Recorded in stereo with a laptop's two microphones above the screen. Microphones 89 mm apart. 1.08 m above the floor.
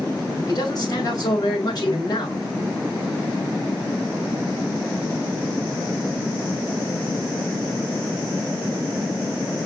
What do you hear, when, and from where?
0.5 s a man speaking: 45° left (ahead or behind), 4 m